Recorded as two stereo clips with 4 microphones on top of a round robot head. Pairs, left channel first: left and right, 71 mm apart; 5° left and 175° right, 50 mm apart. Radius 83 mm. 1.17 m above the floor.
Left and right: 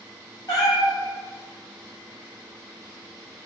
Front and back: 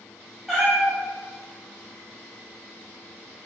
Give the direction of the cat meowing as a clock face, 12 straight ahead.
9 o'clock.